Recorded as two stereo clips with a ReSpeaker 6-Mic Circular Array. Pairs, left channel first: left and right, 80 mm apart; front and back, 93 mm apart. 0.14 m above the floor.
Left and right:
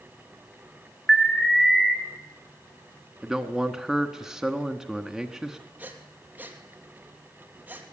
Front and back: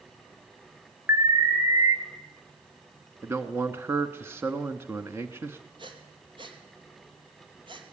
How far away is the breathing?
About 2.5 m.